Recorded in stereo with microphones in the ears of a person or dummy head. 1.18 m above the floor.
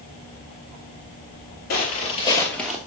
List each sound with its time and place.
1.7 s footsteps: 50° left (ahead or behind), 1.9 m; by 2.8 s 5° right (ahead or behind), 1.5 m